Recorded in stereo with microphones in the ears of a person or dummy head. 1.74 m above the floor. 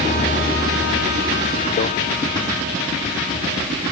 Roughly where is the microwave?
Left.